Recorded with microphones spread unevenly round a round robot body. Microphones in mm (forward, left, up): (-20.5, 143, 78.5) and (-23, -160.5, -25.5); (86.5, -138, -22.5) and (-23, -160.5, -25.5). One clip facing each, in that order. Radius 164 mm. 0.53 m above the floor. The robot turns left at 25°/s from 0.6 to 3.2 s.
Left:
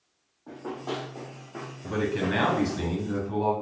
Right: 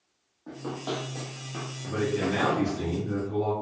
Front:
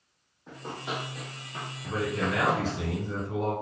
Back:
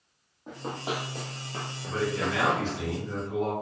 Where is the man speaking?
35° left, 1.0 m; by 3.5 s straight ahead, 1.0 m.